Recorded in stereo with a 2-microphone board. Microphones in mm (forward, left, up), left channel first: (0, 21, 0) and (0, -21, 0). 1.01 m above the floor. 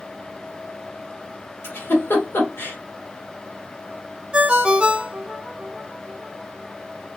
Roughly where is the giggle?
Left.